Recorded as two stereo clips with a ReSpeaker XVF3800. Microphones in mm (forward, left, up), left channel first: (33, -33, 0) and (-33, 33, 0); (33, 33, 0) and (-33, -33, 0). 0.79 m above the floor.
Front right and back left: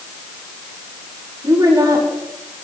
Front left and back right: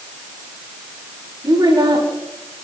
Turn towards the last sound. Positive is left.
turn(degrees=180)